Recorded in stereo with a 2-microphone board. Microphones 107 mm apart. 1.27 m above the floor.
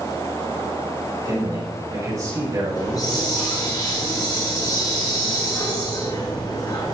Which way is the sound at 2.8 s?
40° left (ahead or behind).